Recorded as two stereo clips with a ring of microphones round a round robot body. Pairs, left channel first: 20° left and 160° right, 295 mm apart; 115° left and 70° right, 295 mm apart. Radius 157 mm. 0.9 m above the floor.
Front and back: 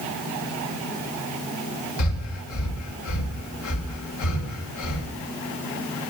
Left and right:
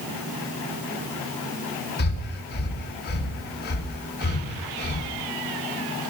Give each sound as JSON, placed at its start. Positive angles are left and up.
{"t": 2.0, "sound": "breathing", "azimuth_deg": 55, "distance_m": 3.0}